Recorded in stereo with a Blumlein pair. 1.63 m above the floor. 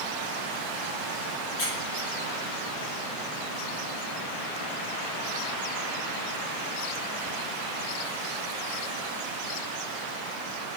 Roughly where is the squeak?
Ahead left.